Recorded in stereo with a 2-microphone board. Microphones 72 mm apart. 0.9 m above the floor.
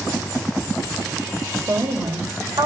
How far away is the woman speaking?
About 5 m.